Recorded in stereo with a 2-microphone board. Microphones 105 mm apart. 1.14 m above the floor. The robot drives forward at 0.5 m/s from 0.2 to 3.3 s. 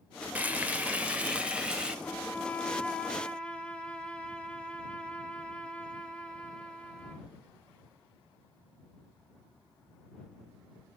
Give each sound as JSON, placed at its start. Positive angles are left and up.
{"t": 0.3, "sound": "frying", "side_deg": -15, "distance_m": 0.9}
{"t": 2.0, "sound": "a violin", "side_deg": 20, "distance_m": 0.5}